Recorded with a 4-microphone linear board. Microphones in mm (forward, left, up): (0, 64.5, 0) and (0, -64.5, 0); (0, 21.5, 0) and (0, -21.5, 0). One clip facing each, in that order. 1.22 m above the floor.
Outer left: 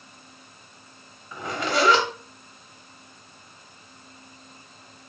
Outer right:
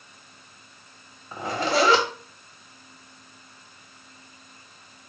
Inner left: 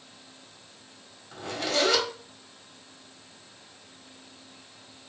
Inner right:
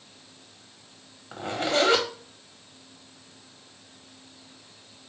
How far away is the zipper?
About 1.1 m.